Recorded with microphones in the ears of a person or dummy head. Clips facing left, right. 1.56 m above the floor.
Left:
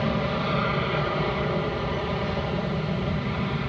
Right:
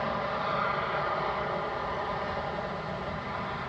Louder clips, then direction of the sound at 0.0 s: Left 6 dB; 40° left (ahead or behind).